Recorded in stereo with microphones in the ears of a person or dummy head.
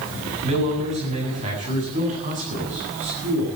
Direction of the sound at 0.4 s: 35° right (ahead or behind).